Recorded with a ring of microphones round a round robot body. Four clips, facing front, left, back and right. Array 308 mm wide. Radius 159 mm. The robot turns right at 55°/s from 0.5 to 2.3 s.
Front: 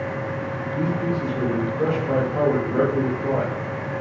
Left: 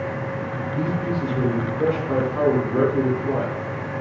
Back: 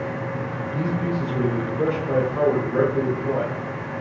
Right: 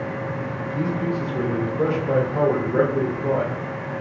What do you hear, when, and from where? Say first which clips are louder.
0.7 s a man speaking: right 1 dB, front 1 dB; 155° right, 1.3 m; by 3.5 s 70° right, 1.3 m